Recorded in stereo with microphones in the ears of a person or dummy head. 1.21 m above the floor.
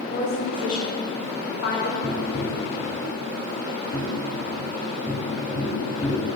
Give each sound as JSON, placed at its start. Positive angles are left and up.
{"t": 0.1, "sound": "a woman speaking", "side_deg": 65, "distance_m": 1.9}
{"t": 2.0, "sound": "tapping", "side_deg": 25, "distance_m": 1.6}